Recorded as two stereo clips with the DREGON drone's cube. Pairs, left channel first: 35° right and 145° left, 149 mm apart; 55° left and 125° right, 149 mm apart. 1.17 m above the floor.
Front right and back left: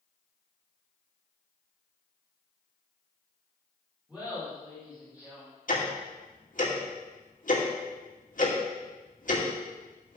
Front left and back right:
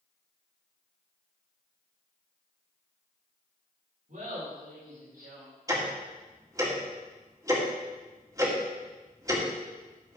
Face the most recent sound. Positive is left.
turn(degrees=-60)